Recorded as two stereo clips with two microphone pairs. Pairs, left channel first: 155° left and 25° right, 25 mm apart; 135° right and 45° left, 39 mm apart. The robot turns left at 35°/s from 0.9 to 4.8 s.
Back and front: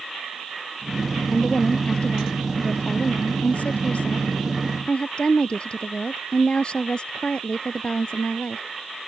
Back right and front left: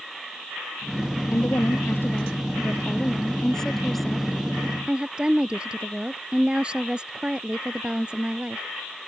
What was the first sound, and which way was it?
A woman speaking, 130° right.